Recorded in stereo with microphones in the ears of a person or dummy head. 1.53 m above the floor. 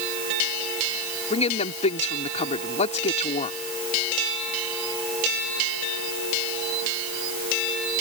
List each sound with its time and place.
1.3 s a woman speaking: 40° left (ahead or behind)